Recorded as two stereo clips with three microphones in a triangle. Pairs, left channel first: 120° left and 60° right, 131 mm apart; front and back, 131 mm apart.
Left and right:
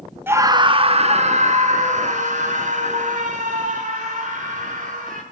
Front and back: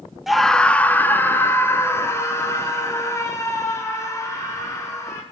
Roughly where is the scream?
Right.